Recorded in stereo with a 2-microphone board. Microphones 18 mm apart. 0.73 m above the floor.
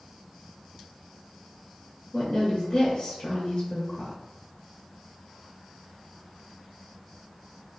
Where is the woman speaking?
30° left (ahead or behind), 0.8 m.